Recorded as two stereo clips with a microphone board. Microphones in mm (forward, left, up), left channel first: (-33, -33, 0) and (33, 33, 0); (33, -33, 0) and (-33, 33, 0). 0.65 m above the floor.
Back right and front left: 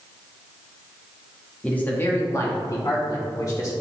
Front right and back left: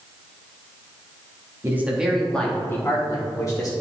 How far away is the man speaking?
About 1.2 m.